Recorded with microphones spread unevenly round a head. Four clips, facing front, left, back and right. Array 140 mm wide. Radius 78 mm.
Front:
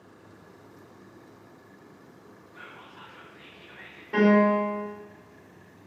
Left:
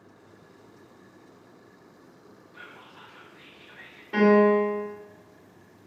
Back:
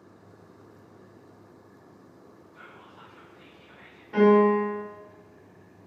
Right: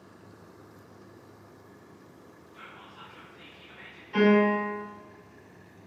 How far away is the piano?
About 1.9 m.